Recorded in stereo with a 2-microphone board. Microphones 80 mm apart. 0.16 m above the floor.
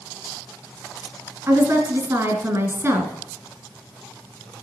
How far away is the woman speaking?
About 2.0 m.